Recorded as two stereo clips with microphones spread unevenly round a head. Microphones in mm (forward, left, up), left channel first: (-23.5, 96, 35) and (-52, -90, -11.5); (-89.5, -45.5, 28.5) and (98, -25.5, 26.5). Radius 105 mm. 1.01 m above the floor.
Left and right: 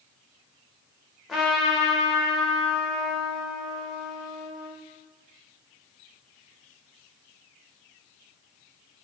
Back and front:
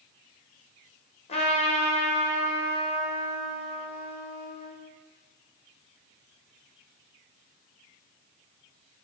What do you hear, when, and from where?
1.3 s a trumpet: 165° right, 0.7 m